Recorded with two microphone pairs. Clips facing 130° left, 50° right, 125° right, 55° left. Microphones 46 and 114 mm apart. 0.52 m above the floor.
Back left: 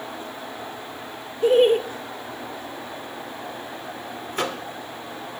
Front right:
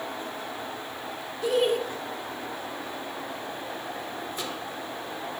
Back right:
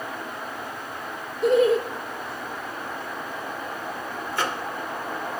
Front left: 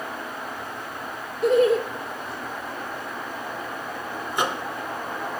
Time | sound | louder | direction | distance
1.4 | laughter | back left 8 dB, even | 150° left | 0.9 m
4.3 | a microwave | back left 7 dB, front left 2 dB | 125° left | 1.1 m